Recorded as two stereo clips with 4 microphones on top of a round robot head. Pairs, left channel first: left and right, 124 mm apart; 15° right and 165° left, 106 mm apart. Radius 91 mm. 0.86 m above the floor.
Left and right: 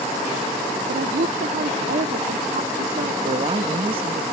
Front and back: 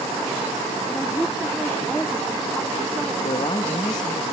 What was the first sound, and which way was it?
A woman speaking, 100° right.